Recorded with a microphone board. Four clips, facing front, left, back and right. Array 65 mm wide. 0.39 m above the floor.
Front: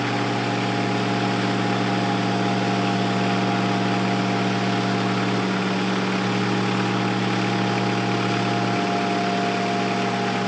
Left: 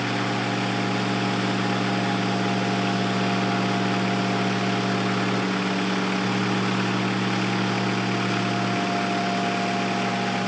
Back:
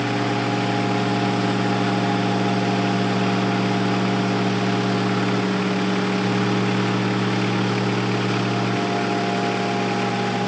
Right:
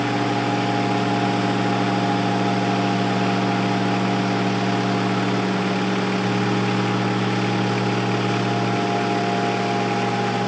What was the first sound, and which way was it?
Only background noise.